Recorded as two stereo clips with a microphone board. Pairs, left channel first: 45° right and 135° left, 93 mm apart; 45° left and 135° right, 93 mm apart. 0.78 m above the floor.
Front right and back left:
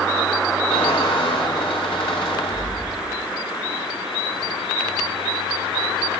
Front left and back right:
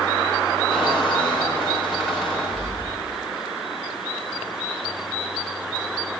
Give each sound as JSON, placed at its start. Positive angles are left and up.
{"t": 0.7, "sound": "a squeak", "azimuth_deg": -55, "distance_m": 3.5}